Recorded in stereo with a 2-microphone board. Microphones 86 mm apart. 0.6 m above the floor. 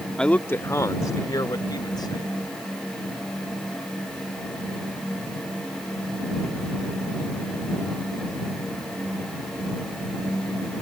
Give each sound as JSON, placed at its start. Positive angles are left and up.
{"t": 0.2, "sound": "a man speaking", "side_deg": 5}